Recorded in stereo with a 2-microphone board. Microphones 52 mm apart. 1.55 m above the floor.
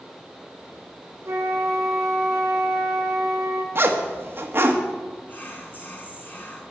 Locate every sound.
1.2 s a flute: 65° right (ahead or behind), 1.9 m
3.8 s a zipper: 45° right (ahead or behind), 1.4 m
5.3 s whispering: 35° left (ahead or behind), 3 m